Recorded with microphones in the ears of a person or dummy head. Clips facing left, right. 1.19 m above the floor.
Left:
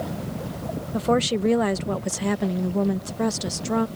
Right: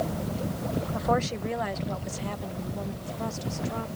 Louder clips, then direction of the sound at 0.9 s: Left 8 dB; 30° left (ahead or behind).